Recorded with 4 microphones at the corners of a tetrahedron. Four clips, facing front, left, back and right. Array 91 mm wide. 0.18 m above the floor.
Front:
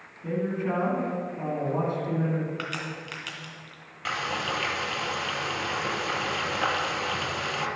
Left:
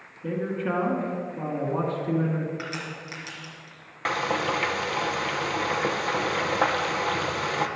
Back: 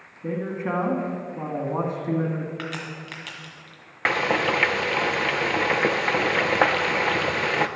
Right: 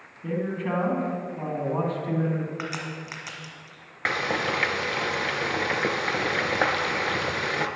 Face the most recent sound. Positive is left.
turn(degrees=-170)